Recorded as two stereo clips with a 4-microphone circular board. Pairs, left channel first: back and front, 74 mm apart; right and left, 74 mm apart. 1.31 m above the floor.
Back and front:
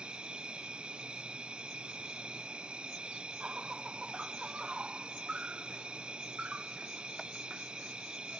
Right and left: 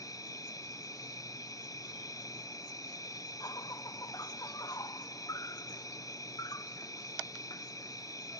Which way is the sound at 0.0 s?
75° right.